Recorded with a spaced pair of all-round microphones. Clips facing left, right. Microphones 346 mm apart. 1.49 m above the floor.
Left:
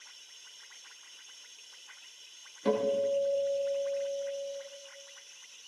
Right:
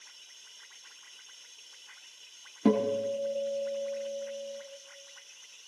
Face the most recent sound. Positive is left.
turn(degrees=-70)  # may be behind; listen again after turning